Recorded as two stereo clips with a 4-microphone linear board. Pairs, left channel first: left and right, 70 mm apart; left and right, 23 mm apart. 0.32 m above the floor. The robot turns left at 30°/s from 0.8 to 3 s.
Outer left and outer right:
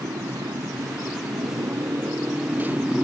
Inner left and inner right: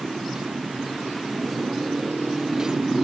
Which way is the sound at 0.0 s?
100° right.